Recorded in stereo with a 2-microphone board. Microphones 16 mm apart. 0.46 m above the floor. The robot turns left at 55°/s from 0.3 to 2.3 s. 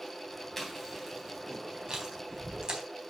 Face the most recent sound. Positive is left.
turn(degrees=-70)  # may be behind; listen again after turning